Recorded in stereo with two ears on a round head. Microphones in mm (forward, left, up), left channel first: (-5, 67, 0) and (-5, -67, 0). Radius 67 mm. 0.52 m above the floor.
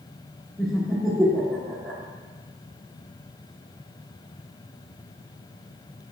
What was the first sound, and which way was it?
Laughter, centre (ahead or behind).